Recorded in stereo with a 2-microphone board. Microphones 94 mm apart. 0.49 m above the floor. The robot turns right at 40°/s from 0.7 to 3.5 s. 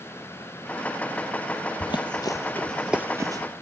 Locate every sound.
1.8 s running footsteps: 55° left (ahead or behind), 0.7 m; by 3.4 s 45° right (ahead or behind), 0.6 m